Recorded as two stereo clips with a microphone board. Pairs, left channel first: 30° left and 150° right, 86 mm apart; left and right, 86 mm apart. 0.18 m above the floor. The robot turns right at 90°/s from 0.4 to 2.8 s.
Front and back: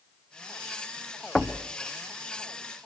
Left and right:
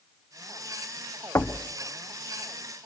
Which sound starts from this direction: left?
Knocking, at 1.4 s.